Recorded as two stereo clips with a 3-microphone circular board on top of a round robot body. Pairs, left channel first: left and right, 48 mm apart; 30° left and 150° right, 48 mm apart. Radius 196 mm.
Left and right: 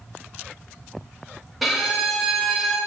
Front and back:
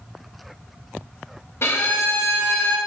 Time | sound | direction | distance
1.6 | a violin | straight ahead | 1.3 m